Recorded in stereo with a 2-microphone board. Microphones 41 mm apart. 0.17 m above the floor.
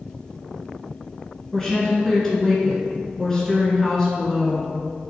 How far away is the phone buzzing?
No phone buzzing in this recording.